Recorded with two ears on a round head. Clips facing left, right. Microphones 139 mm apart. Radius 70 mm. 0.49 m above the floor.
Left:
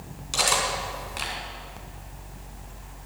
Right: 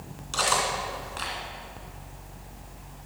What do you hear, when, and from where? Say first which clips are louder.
0.3 s cutlery clinking: even; 15° left (ahead or behind), 2.5 m